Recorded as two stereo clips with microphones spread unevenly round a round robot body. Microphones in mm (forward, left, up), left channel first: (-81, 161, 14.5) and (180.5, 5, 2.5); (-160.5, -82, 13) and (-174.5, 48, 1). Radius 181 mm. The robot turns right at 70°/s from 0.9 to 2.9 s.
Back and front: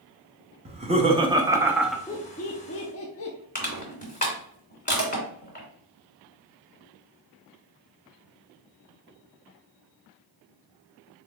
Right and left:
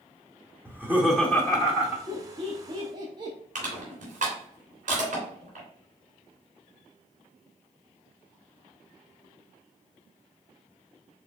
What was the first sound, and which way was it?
Laughter, 20° right.